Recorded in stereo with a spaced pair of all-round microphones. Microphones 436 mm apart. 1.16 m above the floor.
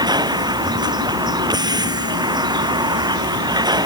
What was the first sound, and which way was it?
A vehicle, 10° right (ahead or behind).